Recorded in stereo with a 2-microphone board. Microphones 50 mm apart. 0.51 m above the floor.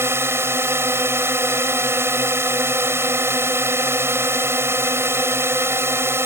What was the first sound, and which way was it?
A drone, 60° right (ahead or behind).